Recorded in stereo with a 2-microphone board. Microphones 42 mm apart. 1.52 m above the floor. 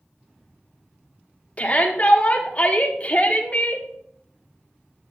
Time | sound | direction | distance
1.6 | a shout | 35° left (ahead or behind) | 1.1 m